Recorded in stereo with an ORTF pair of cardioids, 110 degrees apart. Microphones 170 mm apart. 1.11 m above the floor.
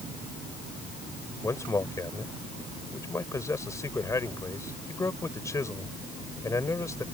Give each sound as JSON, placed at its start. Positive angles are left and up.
{"t": 1.4, "sound": "a man speaking", "azimuth_deg": 20}